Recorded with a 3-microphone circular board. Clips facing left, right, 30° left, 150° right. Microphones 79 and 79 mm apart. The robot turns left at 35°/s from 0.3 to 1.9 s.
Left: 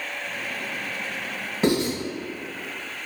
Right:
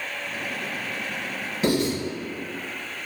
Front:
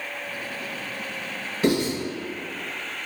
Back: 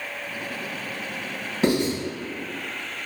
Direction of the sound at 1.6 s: 150° left.